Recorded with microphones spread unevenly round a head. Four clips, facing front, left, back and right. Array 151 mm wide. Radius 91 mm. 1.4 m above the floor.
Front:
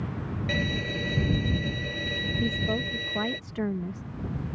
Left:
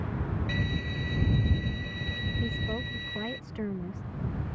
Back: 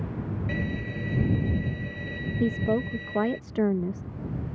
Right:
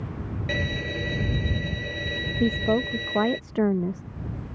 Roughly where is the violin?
Ahead right.